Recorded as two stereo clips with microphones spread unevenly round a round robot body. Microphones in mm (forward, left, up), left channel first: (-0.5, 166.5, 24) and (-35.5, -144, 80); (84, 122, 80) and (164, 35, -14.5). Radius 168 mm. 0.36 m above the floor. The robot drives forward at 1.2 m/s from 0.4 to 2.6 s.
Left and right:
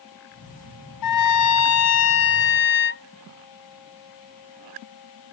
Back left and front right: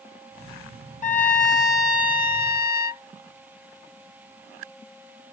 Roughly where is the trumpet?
Left.